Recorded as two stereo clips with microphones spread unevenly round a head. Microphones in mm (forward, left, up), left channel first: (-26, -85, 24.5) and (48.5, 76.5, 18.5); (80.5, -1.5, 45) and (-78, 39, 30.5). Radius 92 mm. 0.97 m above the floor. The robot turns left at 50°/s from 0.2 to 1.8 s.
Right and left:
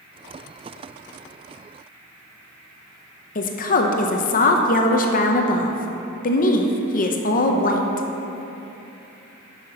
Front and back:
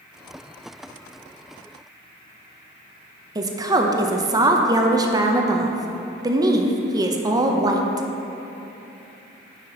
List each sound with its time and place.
3.4 s a woman speaking: 140° right, 0.7 m